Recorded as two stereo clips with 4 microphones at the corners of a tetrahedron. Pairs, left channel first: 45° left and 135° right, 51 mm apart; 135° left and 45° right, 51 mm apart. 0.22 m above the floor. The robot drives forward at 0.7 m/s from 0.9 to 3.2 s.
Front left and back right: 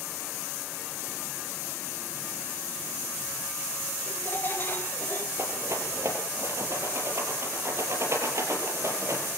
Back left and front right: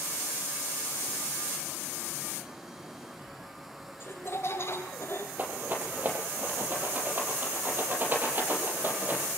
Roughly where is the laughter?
Left.